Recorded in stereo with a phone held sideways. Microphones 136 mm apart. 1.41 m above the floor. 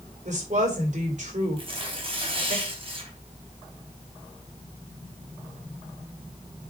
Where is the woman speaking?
55° right (ahead or behind), 4 m.